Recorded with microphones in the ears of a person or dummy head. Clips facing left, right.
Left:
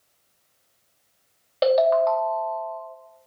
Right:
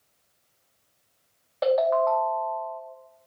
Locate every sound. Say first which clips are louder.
1.6 s a ringtone: left 3 dB; 40° left (ahead or behind), 0.9 m